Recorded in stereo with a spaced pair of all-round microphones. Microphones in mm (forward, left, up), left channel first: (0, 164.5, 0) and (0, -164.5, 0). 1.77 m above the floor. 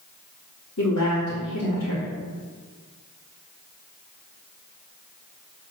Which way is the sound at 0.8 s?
60° left (ahead or behind).